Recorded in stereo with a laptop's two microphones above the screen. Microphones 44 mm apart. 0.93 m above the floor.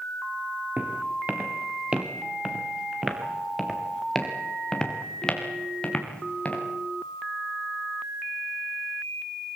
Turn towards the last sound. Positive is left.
turn(degrees=25)  # may be behind; listen again after turning